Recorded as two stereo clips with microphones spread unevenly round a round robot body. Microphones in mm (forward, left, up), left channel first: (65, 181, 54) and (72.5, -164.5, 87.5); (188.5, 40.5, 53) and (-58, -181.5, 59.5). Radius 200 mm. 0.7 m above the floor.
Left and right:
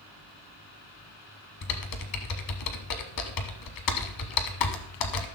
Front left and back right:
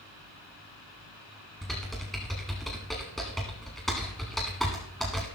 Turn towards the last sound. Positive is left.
turn(degrees=130)